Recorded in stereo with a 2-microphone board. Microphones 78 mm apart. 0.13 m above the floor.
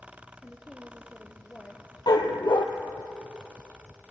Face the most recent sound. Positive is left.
turn(degrees=70)  # may be behind; listen again after turning